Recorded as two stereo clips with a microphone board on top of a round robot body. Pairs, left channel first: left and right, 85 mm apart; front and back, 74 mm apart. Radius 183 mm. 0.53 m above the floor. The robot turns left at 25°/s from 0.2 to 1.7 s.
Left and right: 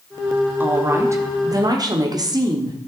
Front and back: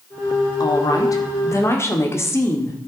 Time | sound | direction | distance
0.6 | a woman speaking | 25° right | 1.6 m